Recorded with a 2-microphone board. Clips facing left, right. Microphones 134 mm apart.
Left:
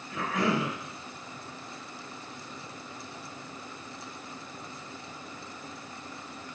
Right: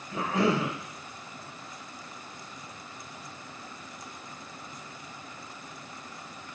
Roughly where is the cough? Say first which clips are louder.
Right 2 dB; right.